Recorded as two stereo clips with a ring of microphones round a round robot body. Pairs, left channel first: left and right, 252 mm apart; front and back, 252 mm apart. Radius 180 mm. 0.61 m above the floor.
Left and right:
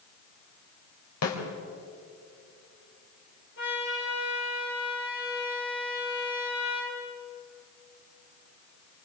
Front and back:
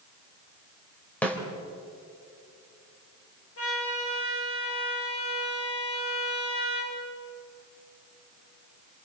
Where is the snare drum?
85° left, 3.5 m.